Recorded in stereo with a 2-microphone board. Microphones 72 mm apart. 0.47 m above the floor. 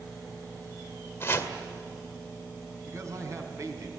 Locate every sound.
1.2 s chopping: 35° left (ahead or behind), 2.0 m
2.9 s a man speaking: 45° right (ahead or behind), 3.5 m